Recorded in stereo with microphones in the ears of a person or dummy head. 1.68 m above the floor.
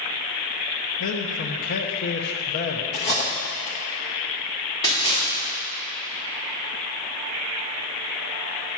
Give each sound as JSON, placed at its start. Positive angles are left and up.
{"t": 1.0, "sound": "a man speaking", "side_deg": 55, "distance_m": 1.0}
{"t": 2.9, "sound": "cutlery clinking", "side_deg": 20, "distance_m": 1.0}
{"t": 4.8, "sound": "a splash", "side_deg": 25, "distance_m": 3.5}